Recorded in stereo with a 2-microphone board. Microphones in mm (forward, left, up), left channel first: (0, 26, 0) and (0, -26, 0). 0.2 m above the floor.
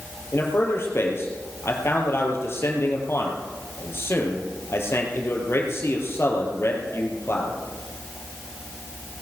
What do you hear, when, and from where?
0.3 s a man speaking: 50° left (ahead or behind), 3.5 m